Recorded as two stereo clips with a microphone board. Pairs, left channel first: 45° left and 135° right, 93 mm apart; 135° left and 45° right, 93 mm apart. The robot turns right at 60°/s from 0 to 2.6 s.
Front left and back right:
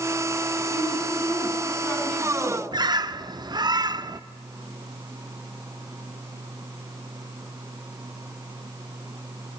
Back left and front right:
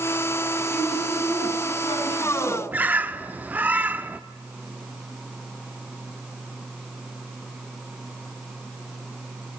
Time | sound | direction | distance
0.7 | a woman speaking | 50° left | 7.5 m
2.7 | a bird | 110° right | 0.6 m